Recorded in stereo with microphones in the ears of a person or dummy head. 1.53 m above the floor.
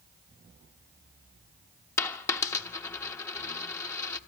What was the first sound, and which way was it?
A dropped coin, 15° left (ahead or behind).